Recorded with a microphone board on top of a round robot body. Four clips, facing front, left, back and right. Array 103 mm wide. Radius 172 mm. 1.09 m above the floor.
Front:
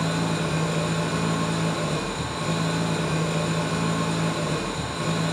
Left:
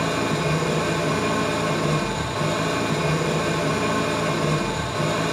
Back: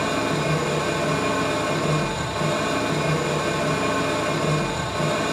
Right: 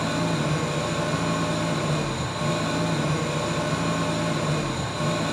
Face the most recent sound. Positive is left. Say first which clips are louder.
# left 2 dB, back 3 dB
turn(degrees=130)